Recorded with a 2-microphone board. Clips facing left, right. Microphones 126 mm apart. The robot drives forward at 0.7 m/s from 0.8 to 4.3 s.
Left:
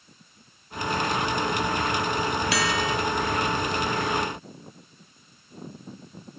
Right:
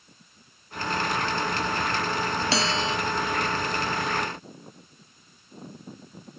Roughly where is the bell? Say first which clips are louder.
Left 1 dB; right.